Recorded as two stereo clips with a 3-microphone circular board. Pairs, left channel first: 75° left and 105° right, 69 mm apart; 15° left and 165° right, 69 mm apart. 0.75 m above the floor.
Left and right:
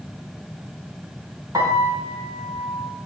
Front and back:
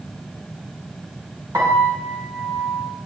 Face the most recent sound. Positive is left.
turn(degrees=-130)